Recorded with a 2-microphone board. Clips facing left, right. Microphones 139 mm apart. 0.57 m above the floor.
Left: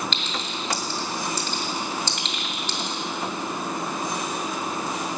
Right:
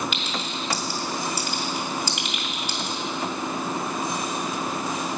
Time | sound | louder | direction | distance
0.1 | a clink | right 1 dB | 10° right (ahead or behind) | 2 m